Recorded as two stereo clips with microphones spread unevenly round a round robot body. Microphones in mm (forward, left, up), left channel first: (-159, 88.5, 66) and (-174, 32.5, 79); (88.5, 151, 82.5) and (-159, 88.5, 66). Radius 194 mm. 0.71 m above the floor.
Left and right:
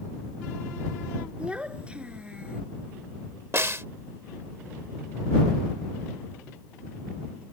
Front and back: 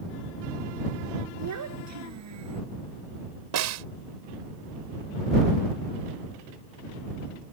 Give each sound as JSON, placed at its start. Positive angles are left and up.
{"t": 1.4, "sound": "a child speaking", "azimuth_deg": -175}
{"t": 3.5, "sound": "a snare drum", "azimuth_deg": -150}